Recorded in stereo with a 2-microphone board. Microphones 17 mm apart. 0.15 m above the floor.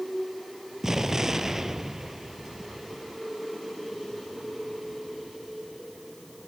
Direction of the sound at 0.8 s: 25° right (ahead or behind).